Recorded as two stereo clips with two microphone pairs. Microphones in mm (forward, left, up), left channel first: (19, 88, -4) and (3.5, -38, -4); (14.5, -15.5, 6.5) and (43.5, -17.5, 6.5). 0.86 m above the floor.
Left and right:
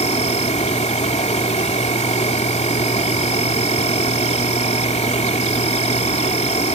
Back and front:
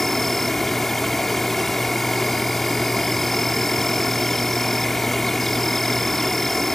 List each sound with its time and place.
0.0 s an insect: 95° left